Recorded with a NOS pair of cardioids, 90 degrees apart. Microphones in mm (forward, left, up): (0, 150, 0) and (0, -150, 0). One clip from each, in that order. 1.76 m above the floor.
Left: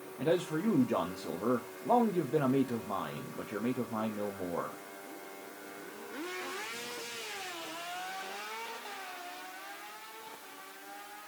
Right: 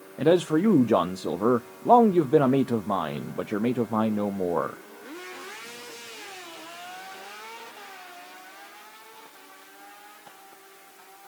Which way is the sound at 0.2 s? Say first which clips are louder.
Right 10 dB; 45° right.